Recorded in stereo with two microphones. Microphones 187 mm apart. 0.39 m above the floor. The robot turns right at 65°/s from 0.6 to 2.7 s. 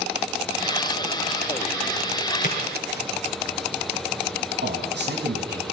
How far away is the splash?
About 4 m.